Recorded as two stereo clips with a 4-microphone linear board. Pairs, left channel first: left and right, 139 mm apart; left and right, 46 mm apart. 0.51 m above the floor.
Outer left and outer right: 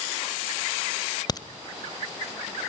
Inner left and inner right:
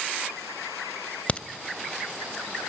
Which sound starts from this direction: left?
A crack, at 1.3 s.